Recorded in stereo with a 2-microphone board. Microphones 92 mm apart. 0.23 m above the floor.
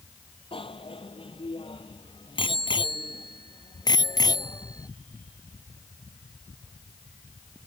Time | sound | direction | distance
0.5 | a bicycle bell | 80° left | ?